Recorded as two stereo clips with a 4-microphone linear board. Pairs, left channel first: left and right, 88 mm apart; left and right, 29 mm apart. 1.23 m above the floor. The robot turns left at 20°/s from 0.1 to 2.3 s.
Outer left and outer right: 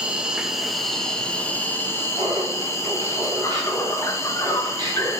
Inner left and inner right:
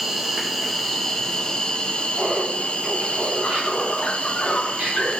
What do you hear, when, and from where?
0.0 s an insect: 170° right, 0.9 m; by 5.2 s 150° left, 0.9 m
2.2 s laughter: 45° right (ahead or behind), 4 m; by 5.1 s 50° right (ahead or behind), 4 m